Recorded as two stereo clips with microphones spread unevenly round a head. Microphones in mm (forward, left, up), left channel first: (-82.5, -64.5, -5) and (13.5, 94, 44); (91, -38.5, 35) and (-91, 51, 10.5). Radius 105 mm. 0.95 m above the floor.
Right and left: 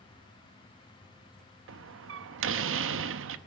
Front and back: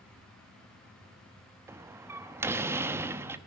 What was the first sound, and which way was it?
A door slam, 75° left.